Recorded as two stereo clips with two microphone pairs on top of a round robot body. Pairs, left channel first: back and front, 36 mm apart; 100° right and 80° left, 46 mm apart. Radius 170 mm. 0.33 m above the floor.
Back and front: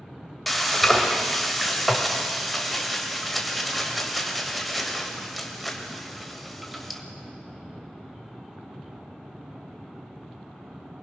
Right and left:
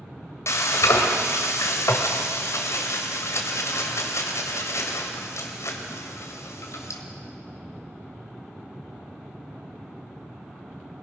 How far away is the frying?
About 2.0 m.